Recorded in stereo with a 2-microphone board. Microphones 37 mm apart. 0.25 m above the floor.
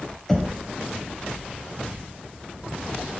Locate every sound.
0.3 s knocking: 15° left (ahead or behind), 0.6 m